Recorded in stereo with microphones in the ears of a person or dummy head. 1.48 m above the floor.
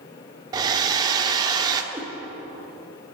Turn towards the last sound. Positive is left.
turn(degrees=-10)  # may be behind; listen again after turning